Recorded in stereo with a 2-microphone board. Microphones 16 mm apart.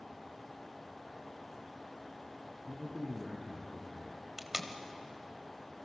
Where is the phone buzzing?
No phone buzzing in this recording.